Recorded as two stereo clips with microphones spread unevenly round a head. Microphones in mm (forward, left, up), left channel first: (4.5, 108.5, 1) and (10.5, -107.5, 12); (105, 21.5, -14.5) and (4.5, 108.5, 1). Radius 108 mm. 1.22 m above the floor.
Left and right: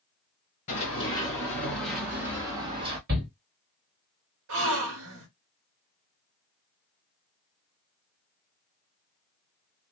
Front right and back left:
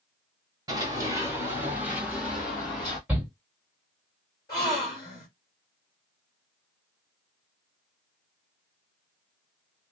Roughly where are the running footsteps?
Behind left.